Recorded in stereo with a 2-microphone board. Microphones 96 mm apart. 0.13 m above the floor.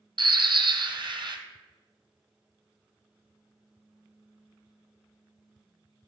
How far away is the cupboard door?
No cupboard door in this recording.